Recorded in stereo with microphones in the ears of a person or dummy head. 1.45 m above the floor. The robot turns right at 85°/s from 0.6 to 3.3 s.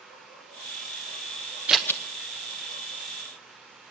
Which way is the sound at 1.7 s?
5° right (ahead or behind).